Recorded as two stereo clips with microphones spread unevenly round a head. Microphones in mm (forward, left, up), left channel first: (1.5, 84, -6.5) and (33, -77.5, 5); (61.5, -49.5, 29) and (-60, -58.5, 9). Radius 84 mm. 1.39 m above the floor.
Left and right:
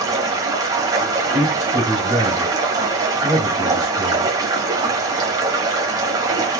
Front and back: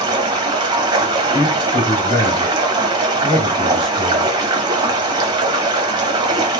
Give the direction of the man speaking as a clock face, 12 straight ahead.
2 o'clock.